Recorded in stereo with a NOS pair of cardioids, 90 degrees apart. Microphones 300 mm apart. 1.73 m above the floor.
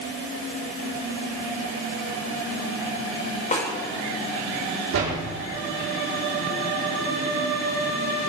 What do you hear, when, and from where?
3.5 s a snare drum: 25° left, 5 m
4.9 s a door slam: 65° right, 3.5 m